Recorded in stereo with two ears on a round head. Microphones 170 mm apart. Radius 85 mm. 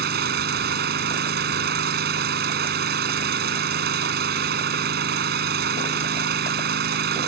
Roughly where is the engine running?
Right.